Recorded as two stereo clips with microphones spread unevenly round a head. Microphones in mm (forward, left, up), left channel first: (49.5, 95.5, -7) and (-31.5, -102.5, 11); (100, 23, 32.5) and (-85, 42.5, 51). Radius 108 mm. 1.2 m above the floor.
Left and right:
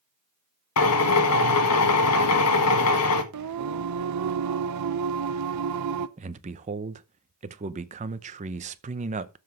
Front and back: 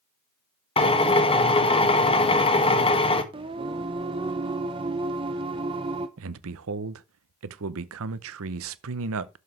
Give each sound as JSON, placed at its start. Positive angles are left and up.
{"t": 0.8, "sound": "a drill", "azimuth_deg": 55, "distance_m": 1.5}
{"t": 3.3, "sound": "singing", "azimuth_deg": -120, "distance_m": 0.7}
{"t": 6.2, "sound": "a man speaking", "azimuth_deg": -175, "distance_m": 0.8}